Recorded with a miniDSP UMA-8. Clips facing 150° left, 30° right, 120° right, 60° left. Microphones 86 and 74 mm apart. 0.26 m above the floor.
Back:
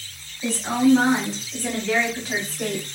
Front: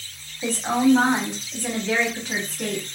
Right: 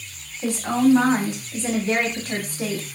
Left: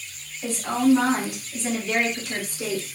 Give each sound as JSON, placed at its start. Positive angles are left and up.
{"t": 0.4, "sound": "a woman speaking", "azimuth_deg": -55, "distance_m": 1.3}